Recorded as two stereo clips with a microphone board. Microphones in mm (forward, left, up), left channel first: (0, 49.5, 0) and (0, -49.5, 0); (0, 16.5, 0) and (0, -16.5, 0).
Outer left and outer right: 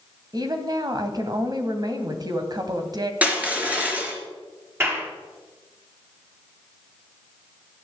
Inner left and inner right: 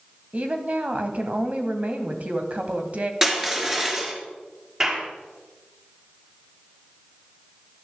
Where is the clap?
25° right (ahead or behind), 5.5 m.